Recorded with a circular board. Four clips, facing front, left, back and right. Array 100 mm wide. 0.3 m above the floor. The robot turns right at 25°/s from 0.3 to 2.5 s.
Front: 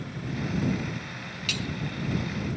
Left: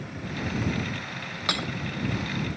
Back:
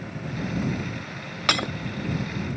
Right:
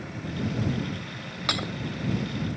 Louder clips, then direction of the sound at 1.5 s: Even, back 10 dB; straight behind.